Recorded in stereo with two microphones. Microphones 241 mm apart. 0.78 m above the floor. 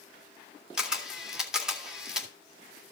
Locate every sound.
0.8 s a camera shutter: 5° right (ahead or behind), 2 m